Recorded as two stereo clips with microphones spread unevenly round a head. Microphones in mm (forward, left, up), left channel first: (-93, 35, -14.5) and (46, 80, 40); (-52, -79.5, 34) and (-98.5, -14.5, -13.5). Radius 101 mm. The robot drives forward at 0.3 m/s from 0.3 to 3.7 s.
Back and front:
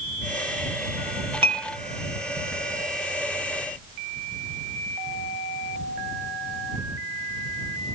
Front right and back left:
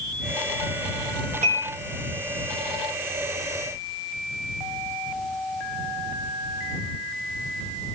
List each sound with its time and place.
1.4 s dishes clattering: 55° left, 1.1 m; by 1.7 s 60° left, 1.1 m